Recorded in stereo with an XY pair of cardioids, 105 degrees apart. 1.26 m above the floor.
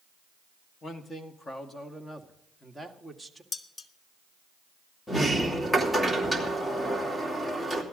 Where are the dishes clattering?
40° left, 1.0 m.